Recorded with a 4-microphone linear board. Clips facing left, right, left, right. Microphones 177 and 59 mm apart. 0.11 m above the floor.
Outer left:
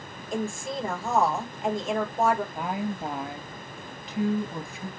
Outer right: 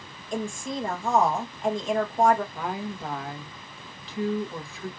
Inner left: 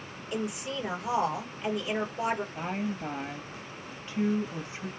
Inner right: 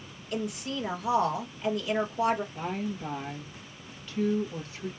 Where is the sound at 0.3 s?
Centre (ahead or behind), 1.8 m.